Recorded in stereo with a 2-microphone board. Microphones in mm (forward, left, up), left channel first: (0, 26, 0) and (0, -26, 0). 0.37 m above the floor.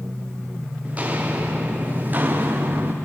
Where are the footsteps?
25° right (ahead or behind), 4.5 m; by 2.9 s 35° right (ahead or behind), 3 m.